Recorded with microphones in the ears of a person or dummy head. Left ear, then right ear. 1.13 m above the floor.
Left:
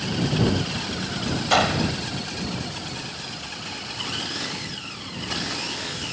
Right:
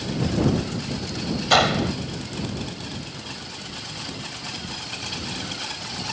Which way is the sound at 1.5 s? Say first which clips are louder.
Right 2 dB; 5° right (ahead or behind).